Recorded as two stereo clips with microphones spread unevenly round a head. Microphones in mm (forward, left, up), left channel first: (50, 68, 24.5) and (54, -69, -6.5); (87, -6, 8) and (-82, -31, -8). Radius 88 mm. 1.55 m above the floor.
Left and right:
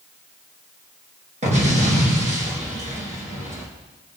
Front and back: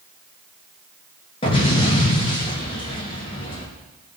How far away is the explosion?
About 5 m.